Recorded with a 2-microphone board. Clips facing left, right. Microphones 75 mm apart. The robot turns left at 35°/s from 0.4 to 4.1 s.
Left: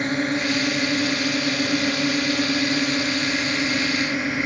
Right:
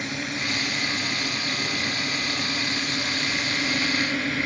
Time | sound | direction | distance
0.0 | a drone | 45° left (ahead or behind) | ?